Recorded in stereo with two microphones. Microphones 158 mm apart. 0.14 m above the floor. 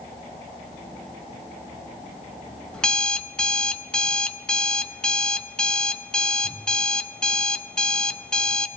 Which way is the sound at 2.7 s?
5° left (ahead or behind).